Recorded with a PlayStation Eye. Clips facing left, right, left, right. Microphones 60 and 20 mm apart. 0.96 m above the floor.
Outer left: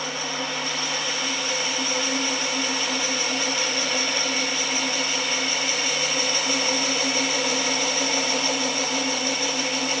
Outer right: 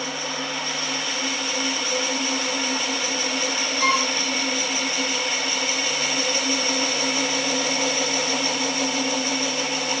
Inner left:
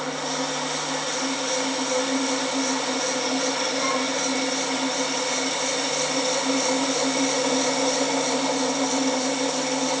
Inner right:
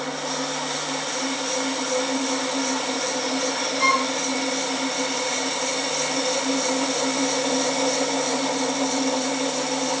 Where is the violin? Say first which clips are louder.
Outer right 6 dB, inner right 8 dB; 80° right.